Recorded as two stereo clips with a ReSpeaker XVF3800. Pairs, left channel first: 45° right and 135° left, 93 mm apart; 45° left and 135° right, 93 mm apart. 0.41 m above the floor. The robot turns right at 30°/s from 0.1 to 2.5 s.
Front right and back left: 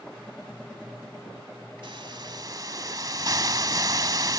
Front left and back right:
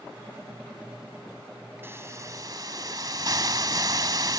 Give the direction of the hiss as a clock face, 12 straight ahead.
7 o'clock.